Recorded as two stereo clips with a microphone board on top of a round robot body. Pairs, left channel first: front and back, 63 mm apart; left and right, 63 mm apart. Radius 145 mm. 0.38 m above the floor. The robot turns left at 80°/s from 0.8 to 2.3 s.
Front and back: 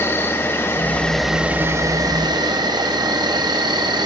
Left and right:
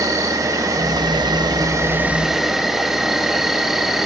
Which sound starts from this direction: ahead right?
An insect, at 0.0 s.